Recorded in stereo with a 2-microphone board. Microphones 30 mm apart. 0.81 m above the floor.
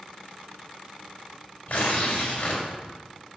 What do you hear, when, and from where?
1.7 s tearing paper: 50° left (ahead or behind), 2.5 m